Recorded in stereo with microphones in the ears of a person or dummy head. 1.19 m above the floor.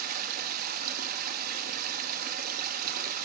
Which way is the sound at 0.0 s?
55° right (ahead or behind).